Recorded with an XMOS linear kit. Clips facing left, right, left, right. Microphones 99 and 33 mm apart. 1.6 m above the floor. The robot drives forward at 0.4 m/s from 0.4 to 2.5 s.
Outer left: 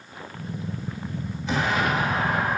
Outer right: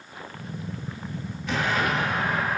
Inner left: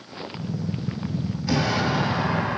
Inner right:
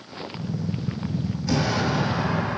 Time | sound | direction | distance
1.5 | an explosion | 25° left (ahead or behind) | 1.4 m